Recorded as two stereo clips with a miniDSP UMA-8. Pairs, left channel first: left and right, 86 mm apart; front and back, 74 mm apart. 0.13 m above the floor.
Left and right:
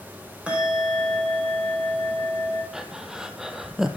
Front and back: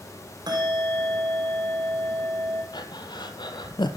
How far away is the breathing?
About 1.0 m.